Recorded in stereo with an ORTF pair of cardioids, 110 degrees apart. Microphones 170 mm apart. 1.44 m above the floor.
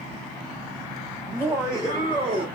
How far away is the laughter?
About 2 m.